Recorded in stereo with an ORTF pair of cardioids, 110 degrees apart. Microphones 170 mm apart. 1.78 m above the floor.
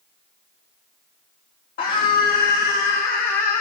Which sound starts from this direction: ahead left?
A scream, at 1.8 s.